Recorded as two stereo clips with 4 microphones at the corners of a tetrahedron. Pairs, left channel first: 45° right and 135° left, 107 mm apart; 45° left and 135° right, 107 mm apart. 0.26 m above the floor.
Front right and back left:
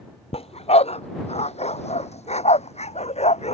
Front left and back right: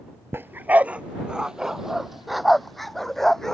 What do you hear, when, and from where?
0.3 s a dog barking: 65° right; by 3.5 s 40° right